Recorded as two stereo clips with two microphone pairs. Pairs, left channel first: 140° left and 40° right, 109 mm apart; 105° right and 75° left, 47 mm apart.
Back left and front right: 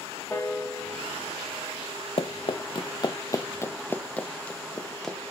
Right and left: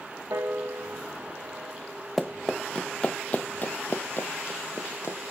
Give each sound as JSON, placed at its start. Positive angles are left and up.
{"t": 0.3, "sound": "a piano", "azimuth_deg": 70, "distance_m": 10.0}
{"t": 2.2, "sound": "running footsteps", "azimuth_deg": 165, "distance_m": 1.2}